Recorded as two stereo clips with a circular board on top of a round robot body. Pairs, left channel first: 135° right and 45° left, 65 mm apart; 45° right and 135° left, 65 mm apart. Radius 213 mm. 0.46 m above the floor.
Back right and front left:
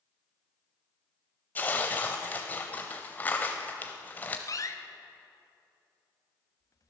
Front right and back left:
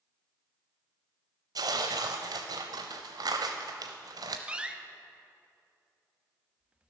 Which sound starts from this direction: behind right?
A door slam, at 4.5 s.